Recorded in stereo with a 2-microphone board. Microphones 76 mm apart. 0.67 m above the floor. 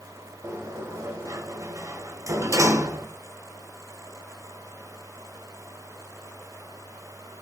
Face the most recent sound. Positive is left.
turn(degrees=-45)  # may be behind; listen again after turning